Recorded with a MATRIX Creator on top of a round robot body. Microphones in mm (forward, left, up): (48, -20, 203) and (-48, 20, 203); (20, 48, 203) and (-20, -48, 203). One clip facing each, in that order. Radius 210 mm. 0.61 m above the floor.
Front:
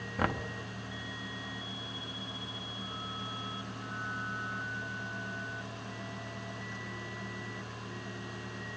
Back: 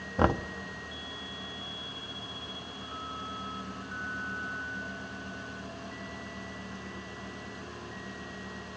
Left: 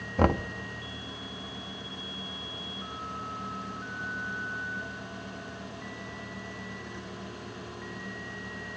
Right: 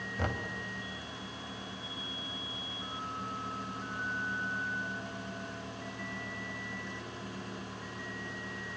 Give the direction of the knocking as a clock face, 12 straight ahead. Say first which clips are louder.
Back 7 dB, left 12 dB; 9 o'clock.